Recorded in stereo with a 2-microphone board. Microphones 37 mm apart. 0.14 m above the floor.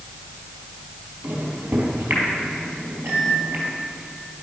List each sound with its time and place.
1.2 s a microwave: 65° right (ahead or behind), 3 m